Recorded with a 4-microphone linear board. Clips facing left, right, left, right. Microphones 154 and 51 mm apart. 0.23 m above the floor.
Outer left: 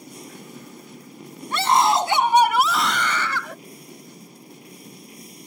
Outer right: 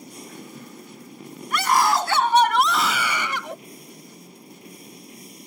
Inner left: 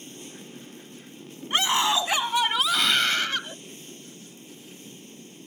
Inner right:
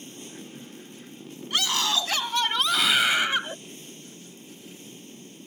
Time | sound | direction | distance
1.5 | a scream | 30° left (ahead or behind) | ?